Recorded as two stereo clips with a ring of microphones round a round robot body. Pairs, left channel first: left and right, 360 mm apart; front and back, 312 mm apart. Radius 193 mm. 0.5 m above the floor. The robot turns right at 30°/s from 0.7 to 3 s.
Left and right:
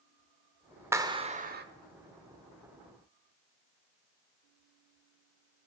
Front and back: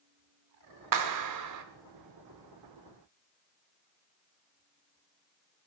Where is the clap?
175° right, 1.1 m; by 1.6 s 150° right, 1.1 m.